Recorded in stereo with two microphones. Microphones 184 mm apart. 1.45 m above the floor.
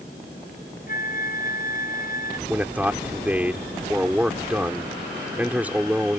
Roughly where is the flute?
Left.